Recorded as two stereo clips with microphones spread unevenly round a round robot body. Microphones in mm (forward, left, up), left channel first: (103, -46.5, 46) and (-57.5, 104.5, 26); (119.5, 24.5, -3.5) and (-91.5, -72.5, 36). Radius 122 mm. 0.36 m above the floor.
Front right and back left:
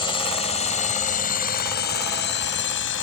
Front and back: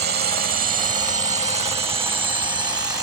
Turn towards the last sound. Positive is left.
turn(degrees=-75)